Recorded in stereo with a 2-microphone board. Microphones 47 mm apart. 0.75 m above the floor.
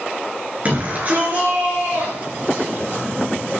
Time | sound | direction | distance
0.7 | a shout | 30° right (ahead or behind) | 9.5 m